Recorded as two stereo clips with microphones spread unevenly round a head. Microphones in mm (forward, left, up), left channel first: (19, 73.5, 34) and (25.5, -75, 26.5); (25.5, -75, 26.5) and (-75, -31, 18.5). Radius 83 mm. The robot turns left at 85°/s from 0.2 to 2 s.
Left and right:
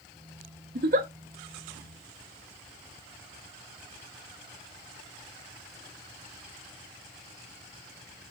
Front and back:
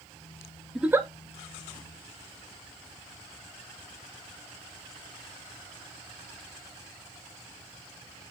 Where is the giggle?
115° right, 1.2 m; by 1.1 s 145° right, 1.2 m.